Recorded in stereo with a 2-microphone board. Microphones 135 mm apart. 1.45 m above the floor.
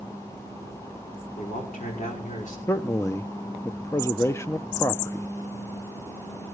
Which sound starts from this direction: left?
A man speaking, at 1.4 s.